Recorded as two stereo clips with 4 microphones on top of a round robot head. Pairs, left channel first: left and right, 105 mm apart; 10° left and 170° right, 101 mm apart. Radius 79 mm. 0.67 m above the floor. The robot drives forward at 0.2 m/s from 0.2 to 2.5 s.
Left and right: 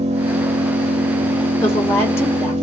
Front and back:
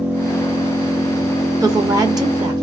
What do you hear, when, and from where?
0.0 s an engine running: 90° right, 0.9 m; by 2.6 s 120° right, 1.0 m
1.6 s a woman speaking: 145° left, 1.2 m; by 2.5 s 150° left, 1.4 m